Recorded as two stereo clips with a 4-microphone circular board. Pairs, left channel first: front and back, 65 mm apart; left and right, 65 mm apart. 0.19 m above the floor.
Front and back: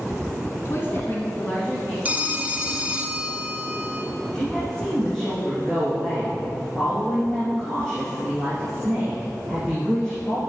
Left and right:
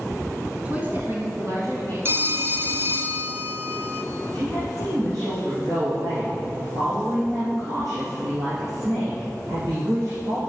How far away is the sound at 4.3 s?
About 4 m.